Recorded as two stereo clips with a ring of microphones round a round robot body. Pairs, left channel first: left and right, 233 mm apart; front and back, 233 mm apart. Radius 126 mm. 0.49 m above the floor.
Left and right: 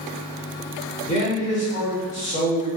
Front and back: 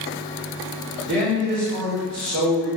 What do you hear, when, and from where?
1.1 s a man speaking: 145° left, 1.7 m